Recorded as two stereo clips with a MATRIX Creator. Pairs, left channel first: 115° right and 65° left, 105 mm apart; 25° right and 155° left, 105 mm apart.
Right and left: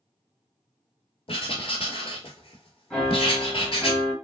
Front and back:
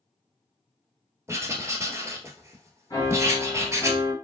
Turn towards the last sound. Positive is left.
turn(degrees=-25)